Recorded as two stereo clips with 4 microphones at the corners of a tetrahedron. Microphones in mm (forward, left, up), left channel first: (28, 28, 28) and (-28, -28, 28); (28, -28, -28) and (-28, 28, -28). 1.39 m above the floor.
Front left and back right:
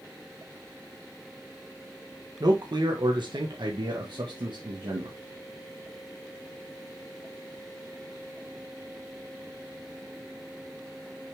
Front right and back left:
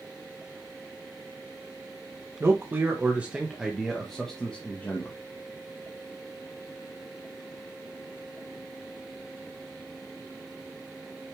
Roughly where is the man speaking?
Behind.